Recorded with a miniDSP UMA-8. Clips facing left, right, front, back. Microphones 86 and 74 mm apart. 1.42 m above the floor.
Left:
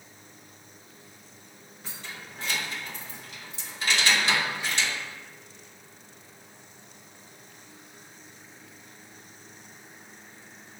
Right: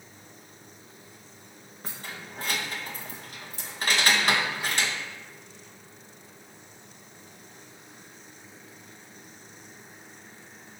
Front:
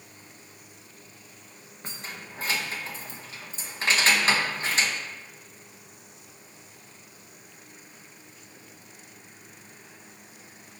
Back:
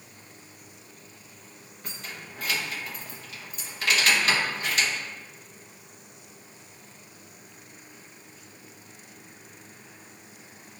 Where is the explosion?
No explosion in this recording.